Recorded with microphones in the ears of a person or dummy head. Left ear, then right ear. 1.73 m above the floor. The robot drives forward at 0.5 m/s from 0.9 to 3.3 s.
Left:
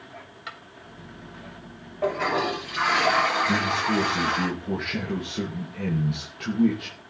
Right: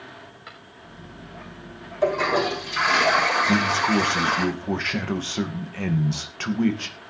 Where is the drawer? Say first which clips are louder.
Left 6 dB; 20° left (ahead or behind), 3.5 m.